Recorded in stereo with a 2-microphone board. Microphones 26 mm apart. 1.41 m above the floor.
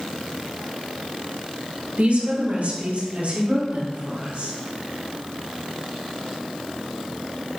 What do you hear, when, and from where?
2.0 s a woman speaking: 65° right (ahead or behind), 1.4 m; by 4.5 s 80° right, 4.5 m